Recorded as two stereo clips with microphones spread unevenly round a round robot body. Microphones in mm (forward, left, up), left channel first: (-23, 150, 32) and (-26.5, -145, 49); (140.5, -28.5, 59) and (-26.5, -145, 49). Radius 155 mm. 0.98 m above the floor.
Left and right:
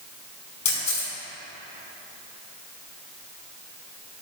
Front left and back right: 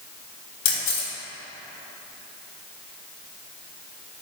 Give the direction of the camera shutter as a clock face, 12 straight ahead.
11 o'clock.